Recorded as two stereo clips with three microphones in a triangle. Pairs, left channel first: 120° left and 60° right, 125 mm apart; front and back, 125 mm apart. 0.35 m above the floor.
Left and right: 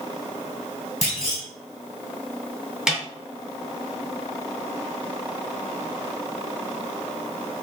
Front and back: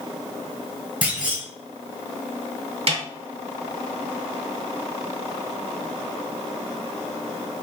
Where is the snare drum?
145° right, 1.8 m.